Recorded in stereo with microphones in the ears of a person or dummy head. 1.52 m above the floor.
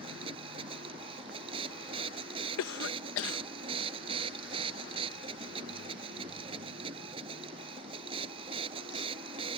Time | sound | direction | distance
0.0 | a machine running | 30° right (ahead or behind) | ?
2.6 | a cough | 80° left | ?